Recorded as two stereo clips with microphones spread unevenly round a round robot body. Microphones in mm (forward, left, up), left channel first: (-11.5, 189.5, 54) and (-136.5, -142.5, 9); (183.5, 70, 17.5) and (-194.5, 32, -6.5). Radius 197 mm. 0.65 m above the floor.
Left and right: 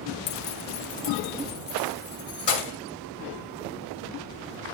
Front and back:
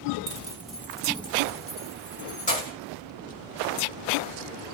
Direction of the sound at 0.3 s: 125° left.